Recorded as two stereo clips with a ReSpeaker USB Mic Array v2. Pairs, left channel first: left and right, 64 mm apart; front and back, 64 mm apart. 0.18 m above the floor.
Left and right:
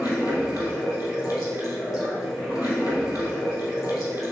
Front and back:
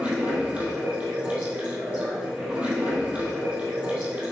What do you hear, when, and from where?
0.0 s running water: 110° left, 2.5 m